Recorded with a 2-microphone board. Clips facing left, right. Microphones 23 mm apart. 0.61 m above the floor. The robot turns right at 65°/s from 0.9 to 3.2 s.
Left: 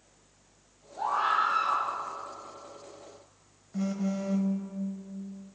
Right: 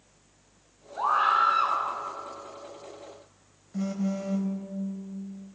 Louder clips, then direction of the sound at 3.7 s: Right 1 dB; 5° left (ahead or behind).